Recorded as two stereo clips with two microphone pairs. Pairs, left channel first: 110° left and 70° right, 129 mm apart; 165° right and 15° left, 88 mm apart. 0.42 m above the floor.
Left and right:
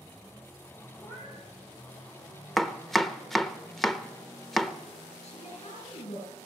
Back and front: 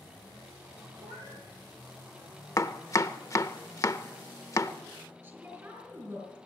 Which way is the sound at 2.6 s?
160° right.